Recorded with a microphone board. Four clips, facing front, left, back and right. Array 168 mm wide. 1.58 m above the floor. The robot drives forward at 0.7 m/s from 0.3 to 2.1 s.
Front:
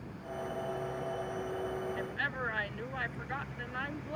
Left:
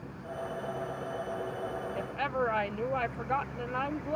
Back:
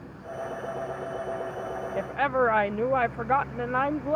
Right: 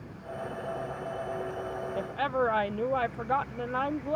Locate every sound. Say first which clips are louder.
2.0 s a woman speaking: right 4 dB, back 12 dB; 165° right